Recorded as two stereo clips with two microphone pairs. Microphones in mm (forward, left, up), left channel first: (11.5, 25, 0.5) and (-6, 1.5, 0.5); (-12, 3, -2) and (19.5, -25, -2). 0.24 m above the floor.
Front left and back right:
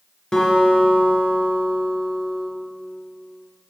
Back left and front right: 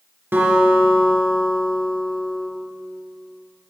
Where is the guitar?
15° right, 3 m.